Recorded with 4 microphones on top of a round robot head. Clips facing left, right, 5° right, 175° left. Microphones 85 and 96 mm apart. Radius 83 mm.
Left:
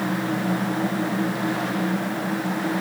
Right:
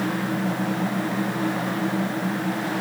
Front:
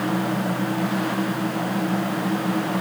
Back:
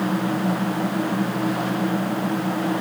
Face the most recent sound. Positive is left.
No sound to turn to.